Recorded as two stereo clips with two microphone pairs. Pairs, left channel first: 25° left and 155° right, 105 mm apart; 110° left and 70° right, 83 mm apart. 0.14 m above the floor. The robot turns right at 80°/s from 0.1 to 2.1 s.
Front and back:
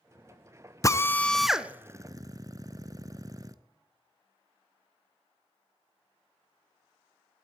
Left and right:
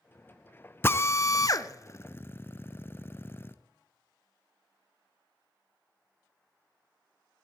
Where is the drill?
60° left, 0.6 m; by 3.5 s 165° left, 0.6 m.